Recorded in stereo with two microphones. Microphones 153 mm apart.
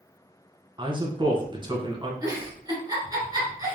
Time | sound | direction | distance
0.8 | a man speaking | 30° right (ahead or behind) | 1.1 m
2.2 | a giggle | 25° right (ahead or behind) | 2 m